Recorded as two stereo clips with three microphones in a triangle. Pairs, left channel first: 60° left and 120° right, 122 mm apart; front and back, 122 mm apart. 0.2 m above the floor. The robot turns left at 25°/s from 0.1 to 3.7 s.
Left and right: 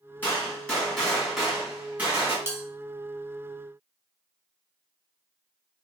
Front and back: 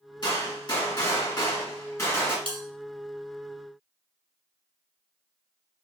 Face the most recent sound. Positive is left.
turn(degrees=150)